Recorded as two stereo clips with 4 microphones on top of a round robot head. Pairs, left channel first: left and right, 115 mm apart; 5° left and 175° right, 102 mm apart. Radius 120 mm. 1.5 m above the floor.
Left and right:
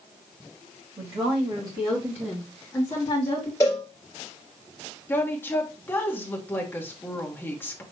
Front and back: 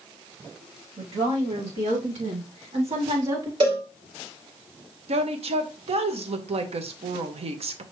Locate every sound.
1.0 s a woman speaking: 140° right, 2 m; by 3.5 s 135° left, 1.3 m
3.6 s a cowbell: 160° left, 1.8 m
5.1 s a woman speaking: 165° left, 0.9 m